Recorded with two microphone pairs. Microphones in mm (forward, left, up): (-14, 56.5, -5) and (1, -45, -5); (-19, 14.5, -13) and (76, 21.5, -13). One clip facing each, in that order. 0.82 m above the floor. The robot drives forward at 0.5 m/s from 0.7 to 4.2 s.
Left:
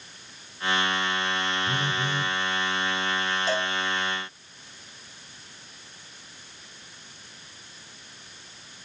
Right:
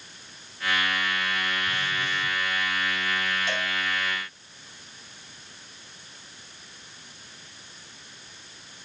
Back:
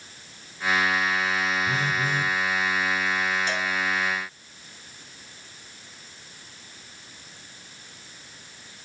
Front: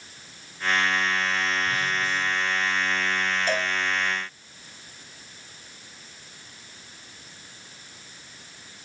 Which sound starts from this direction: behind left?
A phone buzzing, at 1.7 s.